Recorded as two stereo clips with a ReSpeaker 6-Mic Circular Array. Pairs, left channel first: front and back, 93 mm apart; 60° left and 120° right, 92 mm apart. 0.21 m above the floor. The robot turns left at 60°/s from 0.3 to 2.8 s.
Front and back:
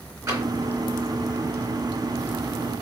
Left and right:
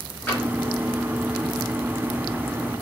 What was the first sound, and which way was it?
Tapping, 125° left.